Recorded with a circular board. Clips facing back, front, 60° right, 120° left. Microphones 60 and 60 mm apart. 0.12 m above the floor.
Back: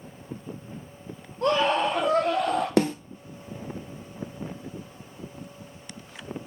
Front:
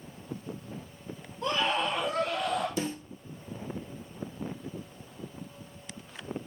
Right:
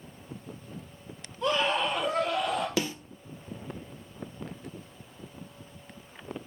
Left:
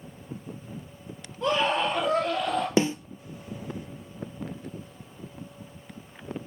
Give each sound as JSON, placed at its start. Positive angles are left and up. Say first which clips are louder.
{"t": 1.4, "sound": "a scream", "louder": "back 6 dB, left 2 dB", "azimuth_deg": -175, "distance_m": 2.5}
{"t": 2.8, "sound": "a snare drum", "louder": "back 10 dB, left 7 dB", "azimuth_deg": -175, "distance_m": 0.8}